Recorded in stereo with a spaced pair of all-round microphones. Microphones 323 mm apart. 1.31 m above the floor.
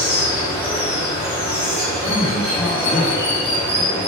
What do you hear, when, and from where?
0.0 s running water: 20° left (ahead or behind), 3 m
2.0 s a man speaking: 40° left (ahead or behind), 2 m